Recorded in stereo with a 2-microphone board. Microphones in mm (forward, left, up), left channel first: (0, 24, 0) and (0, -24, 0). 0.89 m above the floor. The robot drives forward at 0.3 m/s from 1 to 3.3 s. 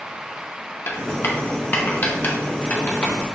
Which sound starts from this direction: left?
Writing, at 0.9 s.